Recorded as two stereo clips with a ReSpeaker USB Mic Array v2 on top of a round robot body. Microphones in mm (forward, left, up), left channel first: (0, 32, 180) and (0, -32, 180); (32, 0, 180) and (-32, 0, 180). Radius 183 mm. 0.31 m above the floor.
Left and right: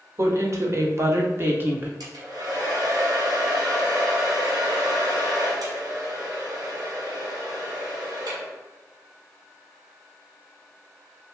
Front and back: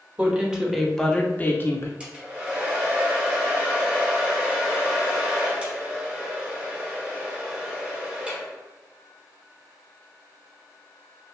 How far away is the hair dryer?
About 1.2 m.